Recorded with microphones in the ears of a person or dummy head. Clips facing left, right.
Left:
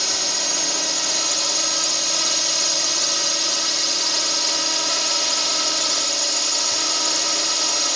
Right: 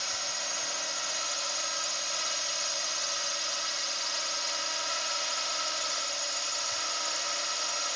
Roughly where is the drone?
Left.